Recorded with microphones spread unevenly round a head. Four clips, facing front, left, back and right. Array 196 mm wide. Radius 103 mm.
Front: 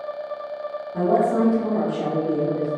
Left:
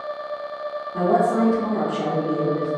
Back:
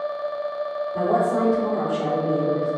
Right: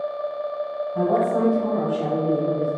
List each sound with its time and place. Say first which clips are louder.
0.9 s a woman speaking: left 2 dB, front 2 dB; 55° left, 1.7 m